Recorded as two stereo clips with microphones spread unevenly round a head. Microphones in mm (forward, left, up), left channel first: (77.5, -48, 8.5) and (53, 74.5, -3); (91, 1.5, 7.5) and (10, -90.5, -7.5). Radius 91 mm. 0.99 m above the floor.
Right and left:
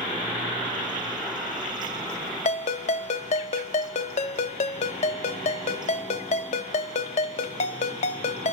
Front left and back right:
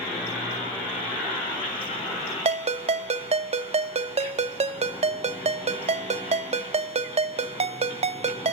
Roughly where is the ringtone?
Right.